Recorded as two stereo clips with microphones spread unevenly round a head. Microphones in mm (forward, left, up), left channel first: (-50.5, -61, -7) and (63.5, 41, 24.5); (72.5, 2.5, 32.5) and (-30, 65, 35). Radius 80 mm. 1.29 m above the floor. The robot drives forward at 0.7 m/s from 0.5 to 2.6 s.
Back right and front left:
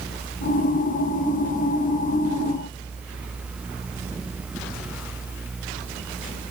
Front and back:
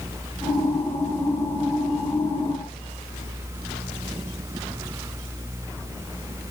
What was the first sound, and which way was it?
Only background noise.